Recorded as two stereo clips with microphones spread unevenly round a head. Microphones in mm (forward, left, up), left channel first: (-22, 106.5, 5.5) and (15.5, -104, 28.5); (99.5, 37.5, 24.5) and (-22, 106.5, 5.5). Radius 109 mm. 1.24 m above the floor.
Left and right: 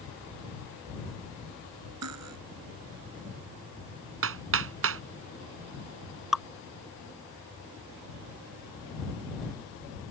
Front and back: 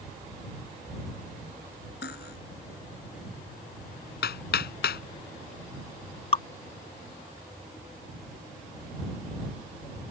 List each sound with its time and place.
2.0 s cutlery clinking: 65° right
4.2 s hammering: 50° right
6.3 s dripping: 5° left